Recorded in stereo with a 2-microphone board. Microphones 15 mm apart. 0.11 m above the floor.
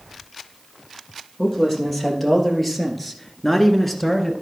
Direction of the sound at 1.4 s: Centre (ahead or behind).